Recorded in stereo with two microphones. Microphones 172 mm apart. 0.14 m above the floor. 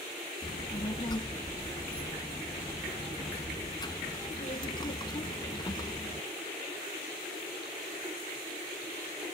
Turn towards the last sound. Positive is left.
turn(degrees=25)  # may be behind; listen again after turning